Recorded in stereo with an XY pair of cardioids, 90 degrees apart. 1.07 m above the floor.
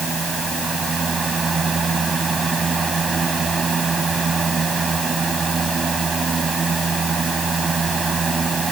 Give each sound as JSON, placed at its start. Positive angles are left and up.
{"t": 0.0, "sound": "a fan", "azimuth_deg": -40}